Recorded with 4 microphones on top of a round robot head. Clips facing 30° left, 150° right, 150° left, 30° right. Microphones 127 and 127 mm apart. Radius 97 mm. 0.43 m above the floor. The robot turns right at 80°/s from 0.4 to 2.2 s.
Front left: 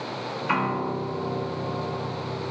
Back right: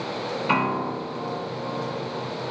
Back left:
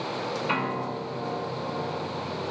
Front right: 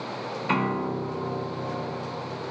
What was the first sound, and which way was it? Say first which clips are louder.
A piano: back right 1 dB, front right 3 dB; 80° right.